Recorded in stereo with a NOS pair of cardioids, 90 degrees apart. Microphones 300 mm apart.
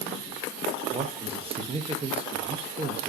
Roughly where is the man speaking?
Ahead.